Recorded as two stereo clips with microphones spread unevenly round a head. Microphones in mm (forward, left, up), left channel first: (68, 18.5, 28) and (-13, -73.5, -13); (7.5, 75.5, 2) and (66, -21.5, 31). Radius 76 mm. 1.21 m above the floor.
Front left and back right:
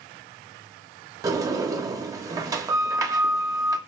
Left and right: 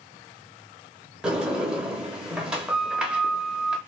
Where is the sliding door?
60° right, 1.0 m.